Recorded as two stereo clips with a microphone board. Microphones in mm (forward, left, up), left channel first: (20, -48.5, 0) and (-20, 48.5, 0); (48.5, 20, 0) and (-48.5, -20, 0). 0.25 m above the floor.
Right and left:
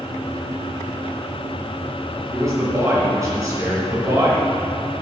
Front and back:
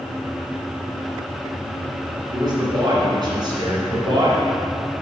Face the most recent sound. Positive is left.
turn(degrees=165)